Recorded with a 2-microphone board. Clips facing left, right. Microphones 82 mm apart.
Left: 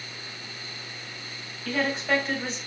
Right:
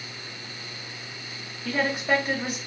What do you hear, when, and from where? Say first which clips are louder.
1.6 s a woman speaking: right 1 dB; 10° right (ahead or behind), 1.8 m